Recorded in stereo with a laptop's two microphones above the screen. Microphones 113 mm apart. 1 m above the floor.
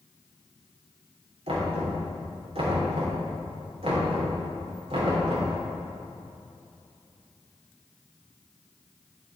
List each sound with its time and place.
1.5 s knocking: 60° right (ahead or behind), 3 m